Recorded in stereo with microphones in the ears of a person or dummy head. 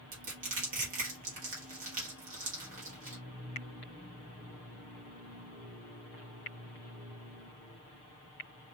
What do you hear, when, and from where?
0.1 s crushing: 40° right (ahead or behind), 1.3 m